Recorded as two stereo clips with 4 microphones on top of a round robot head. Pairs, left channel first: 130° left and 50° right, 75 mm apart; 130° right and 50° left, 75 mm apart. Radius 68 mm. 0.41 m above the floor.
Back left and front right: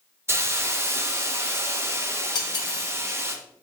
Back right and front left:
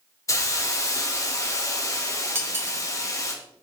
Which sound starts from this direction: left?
Cutlery clinking, at 2.4 s.